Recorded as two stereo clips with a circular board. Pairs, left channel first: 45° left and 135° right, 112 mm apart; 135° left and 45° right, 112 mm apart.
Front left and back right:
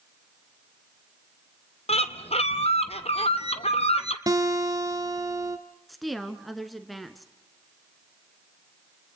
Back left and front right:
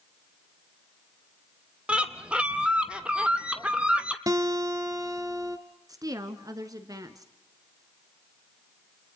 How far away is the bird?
About 1.1 m.